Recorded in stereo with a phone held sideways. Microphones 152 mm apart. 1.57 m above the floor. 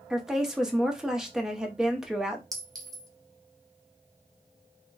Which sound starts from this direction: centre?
A woman speaking, at 0.1 s.